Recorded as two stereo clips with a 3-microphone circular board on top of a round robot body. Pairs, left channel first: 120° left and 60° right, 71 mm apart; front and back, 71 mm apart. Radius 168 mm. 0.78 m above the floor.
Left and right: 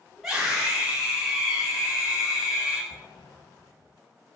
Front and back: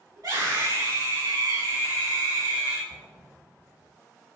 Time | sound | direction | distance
0.2 | a scream | 150° right | 4 m
2.9 | an explosion | 150° left | 1.2 m